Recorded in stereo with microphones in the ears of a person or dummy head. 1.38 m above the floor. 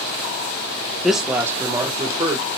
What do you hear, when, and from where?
1.0 s a woman speaking: centre (ahead or behind), 0.7 m; by 2.5 s 35° right (ahead or behind), 1.3 m